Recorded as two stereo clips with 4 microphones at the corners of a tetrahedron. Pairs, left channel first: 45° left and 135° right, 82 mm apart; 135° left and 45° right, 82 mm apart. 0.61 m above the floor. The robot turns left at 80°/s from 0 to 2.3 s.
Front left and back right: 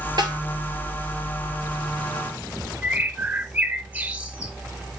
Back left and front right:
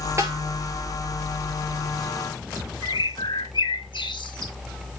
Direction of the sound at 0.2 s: 100° right.